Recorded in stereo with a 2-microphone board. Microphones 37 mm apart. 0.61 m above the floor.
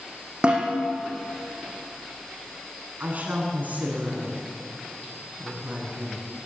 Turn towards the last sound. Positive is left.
turn(degrees=-45)  # may be behind; listen again after turning